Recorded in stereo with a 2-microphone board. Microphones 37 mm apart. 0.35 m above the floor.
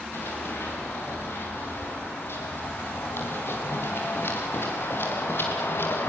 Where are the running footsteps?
80° left, 9 m; by 6.1 s 70° left (ahead or behind), 5 m.